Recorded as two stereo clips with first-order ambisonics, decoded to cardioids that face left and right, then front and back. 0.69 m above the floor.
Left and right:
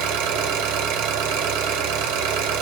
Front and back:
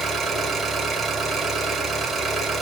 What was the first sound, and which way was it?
An engine running, 100° right.